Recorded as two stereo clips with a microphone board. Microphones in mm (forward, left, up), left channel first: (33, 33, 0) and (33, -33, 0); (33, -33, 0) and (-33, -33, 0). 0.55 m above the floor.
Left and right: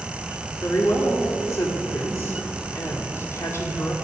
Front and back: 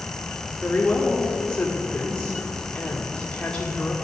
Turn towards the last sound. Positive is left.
turn(degrees=70)